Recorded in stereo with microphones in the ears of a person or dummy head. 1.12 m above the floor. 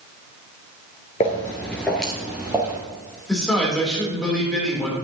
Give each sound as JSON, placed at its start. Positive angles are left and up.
{"t": 1.2, "sound": "footsteps", "side_deg": 15, "distance_m": 1.1}
{"t": 3.3, "sound": "a man speaking", "side_deg": 0, "distance_m": 3.5}